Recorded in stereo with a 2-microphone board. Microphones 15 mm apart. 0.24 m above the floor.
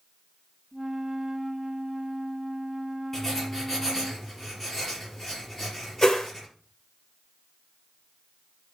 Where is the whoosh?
45° left (ahead or behind), 1.9 m.